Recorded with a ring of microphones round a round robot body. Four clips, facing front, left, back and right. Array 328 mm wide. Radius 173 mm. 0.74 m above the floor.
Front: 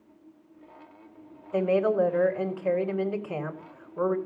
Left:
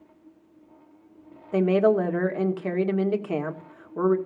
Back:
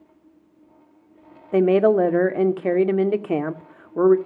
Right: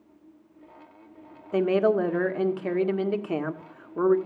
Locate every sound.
1.5 s a woman speaking: 175° right, 1.7 m